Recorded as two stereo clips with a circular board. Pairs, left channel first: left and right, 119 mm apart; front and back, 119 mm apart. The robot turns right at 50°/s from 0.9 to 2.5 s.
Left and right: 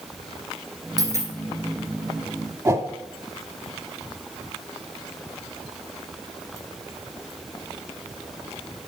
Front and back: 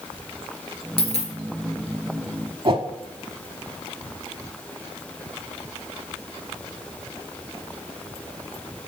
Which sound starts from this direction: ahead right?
A dropped coin, at 1.0 s.